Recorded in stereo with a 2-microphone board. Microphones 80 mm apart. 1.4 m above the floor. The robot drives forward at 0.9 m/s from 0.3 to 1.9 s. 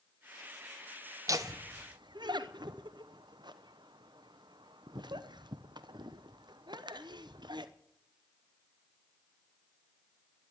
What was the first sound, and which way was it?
Laughter, 40° right (ahead or behind).